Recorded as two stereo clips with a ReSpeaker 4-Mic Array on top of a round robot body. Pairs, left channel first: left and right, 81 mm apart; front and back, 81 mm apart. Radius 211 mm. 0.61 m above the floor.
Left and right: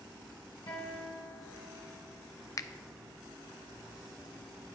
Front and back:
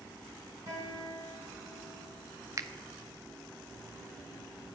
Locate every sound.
0.7 s a guitar: 130° left, 2 m
2.6 s a finger snap: 130° left, 0.5 m